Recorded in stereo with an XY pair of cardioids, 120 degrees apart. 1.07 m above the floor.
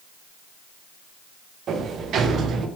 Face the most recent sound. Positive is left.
turn(degrees=-55)